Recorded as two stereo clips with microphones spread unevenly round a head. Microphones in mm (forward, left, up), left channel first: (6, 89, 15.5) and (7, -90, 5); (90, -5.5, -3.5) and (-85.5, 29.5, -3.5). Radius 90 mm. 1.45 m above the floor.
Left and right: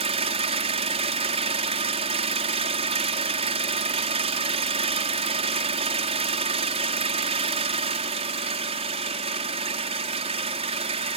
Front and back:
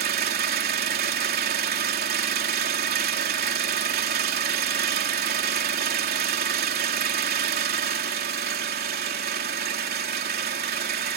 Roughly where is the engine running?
Behind right.